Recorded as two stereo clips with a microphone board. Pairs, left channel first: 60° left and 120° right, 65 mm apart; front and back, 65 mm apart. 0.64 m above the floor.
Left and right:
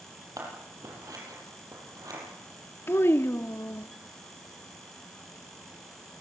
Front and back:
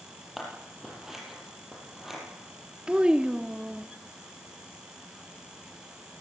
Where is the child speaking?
105° left, 0.7 m.